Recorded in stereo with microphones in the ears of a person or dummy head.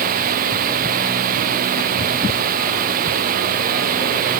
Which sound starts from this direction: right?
Running water, at 0.0 s.